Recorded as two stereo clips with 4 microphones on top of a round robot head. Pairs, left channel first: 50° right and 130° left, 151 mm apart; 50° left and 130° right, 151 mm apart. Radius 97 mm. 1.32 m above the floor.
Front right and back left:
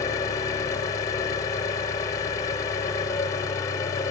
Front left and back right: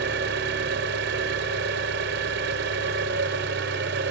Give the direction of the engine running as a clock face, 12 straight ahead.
4 o'clock.